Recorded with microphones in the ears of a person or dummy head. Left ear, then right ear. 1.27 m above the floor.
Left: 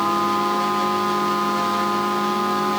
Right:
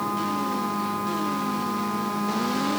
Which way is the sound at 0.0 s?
35° left (ahead or behind).